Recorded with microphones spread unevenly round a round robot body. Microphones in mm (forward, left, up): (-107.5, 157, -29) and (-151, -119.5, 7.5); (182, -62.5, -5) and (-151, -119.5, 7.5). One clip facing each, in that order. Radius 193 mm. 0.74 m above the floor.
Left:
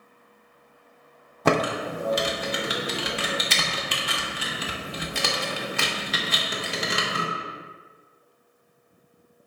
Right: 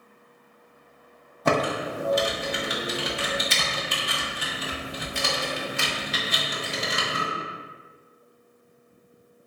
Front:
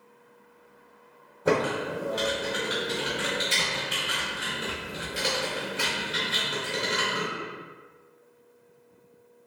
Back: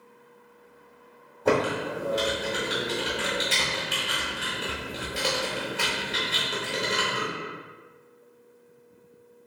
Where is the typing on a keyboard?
95° left, 0.5 m.